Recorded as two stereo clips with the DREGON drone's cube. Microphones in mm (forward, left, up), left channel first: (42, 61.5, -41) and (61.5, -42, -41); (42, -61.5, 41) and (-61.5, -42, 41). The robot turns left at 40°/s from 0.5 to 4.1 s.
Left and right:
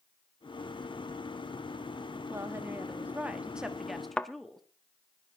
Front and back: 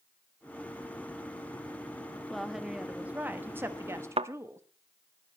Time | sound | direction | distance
2.3 | a woman speaking | 100° right | 1.2 m
4.2 | a thud | straight behind | 0.5 m